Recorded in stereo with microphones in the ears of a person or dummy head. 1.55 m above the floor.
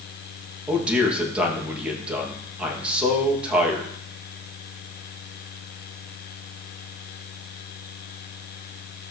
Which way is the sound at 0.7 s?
10° right (ahead or behind).